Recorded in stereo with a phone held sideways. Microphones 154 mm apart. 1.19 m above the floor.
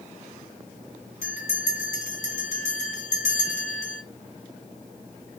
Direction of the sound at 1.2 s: 55° left (ahead or behind).